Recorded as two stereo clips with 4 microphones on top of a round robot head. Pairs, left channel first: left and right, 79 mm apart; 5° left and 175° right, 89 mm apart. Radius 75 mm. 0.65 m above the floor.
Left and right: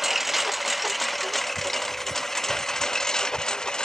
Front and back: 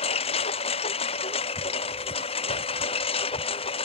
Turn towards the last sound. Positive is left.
turn(degrees=10)